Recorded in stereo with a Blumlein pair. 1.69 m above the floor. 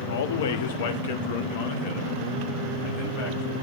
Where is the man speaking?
65° left, 0.7 m; by 3.5 s 50° left, 2.5 m.